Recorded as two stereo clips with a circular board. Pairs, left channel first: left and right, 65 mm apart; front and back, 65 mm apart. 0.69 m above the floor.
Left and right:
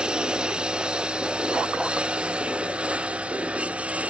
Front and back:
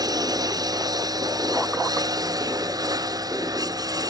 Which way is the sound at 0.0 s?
170° right.